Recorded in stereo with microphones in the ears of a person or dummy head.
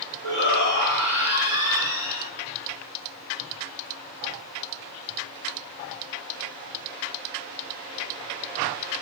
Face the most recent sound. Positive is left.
turn(degrees=-75)  # may be behind; listen again after turning